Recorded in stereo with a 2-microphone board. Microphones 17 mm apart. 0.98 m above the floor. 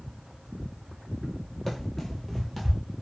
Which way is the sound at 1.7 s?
25° left (ahead or behind).